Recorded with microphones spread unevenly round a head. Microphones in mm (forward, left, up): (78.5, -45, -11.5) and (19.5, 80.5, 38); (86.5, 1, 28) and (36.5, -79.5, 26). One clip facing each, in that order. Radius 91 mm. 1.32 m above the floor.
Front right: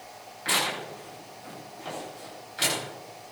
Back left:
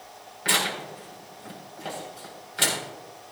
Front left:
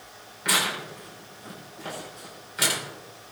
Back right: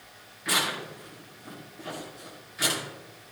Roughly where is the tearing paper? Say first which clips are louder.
Back left 1 dB, front left 2 dB; left.